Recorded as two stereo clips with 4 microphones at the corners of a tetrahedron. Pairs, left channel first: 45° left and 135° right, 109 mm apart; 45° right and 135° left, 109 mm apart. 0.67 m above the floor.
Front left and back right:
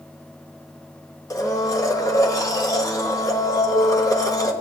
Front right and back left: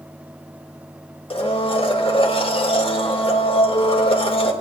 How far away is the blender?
About 1.1 m.